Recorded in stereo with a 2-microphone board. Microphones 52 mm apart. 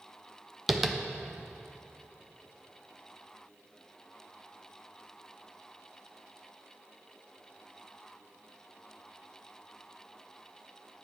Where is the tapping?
5° right (ahead or behind), 0.6 m.